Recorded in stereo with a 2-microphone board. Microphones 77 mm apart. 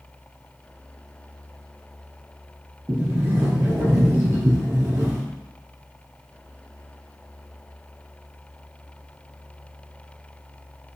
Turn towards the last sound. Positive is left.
turn(degrees=-30)  # may be behind; listen again after turning